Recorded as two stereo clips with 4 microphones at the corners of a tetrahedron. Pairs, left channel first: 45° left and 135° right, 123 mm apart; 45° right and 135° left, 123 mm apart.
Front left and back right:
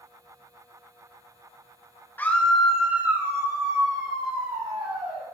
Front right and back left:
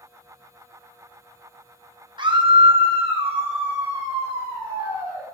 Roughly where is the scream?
Left.